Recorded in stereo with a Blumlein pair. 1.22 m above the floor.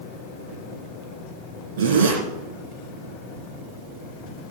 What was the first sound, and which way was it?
A zipper, 55° right.